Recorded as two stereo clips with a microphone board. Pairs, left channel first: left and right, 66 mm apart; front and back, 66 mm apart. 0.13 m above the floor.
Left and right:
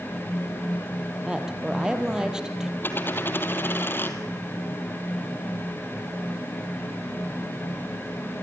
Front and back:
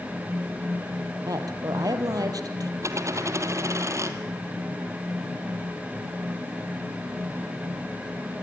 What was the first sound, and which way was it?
A woman speaking, 170° right.